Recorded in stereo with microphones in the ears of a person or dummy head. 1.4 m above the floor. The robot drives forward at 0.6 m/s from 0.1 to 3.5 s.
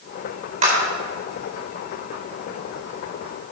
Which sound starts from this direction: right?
A clap, at 0.6 s.